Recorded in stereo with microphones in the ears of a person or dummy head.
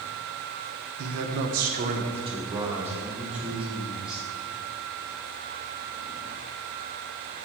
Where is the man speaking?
75° right (ahead or behind), 0.8 m; by 4.2 s 5° right (ahead or behind), 3 m.